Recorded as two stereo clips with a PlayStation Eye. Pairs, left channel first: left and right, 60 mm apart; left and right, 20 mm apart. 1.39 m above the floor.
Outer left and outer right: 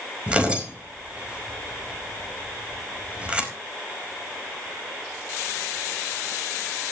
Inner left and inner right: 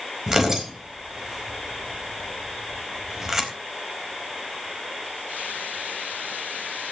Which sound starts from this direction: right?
Tearing paper, at 0.3 s.